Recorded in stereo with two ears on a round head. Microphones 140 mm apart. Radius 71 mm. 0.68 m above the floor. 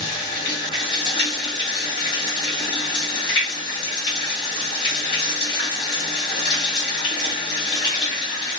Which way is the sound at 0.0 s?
35° left (ahead or behind).